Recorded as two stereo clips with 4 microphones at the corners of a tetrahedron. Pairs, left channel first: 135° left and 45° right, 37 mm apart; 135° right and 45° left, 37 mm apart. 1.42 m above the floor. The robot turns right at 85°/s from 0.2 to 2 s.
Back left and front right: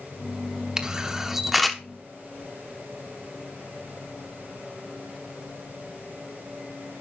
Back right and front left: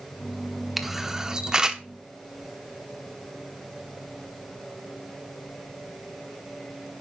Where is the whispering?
I don't hear whispering.